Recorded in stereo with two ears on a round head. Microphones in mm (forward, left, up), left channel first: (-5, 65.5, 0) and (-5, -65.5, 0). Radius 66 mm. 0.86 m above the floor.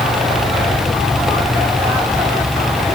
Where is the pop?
I don't hear a pop.